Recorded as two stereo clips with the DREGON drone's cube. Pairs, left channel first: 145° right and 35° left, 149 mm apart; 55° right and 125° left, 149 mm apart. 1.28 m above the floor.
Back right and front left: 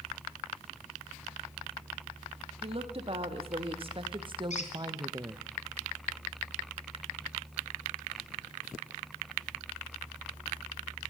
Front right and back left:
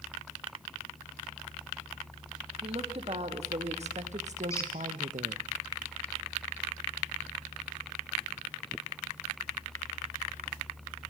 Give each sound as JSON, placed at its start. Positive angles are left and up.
{"t": 2.6, "sound": "a woman speaking", "azimuth_deg": 80, "distance_m": 2.0}
{"t": 4.5, "sound": "a squeak", "azimuth_deg": -120, "distance_m": 2.5}